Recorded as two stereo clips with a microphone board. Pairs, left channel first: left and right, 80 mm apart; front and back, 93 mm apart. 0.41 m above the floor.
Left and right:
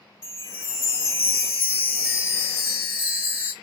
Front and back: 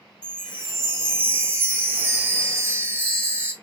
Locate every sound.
0.2 s a chime: 130° left, 1.1 m